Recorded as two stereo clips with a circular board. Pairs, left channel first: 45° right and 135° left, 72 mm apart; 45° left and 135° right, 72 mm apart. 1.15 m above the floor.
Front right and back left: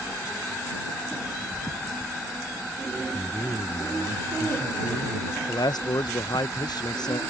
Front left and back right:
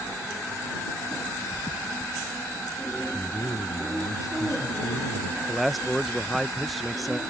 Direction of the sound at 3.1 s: 10° left.